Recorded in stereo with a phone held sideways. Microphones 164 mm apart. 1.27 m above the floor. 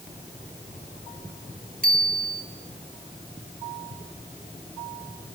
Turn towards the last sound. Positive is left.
turn(degrees=-60)  # may be behind; listen again after turning